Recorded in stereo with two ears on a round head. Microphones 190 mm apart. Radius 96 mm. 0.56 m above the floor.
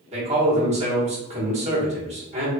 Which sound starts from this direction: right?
A man speaking, at 0.1 s.